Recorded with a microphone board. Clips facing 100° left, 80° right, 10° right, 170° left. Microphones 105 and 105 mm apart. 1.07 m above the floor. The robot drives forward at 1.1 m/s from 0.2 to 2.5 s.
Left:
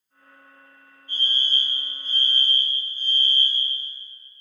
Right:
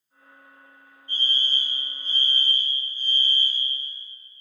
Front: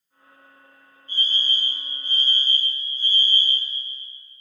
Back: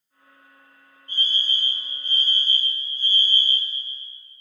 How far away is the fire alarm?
About 2 m.